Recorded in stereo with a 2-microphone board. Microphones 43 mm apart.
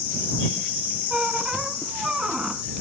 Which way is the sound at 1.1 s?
15° right (ahead or behind).